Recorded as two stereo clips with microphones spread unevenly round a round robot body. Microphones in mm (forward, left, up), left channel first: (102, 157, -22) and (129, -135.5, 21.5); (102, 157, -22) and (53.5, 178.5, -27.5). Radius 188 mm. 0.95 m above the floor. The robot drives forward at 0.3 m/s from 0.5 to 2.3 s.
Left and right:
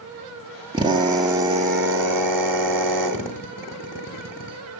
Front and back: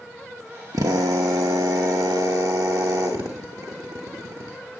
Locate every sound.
0.7 s a drill: 160° right, 0.8 m; by 4.6 s 170° right, 1.3 m